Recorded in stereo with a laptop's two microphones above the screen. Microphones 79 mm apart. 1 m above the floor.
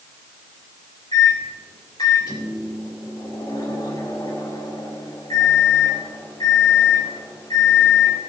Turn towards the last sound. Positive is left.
turn(degrees=60)  # may be behind; listen again after turning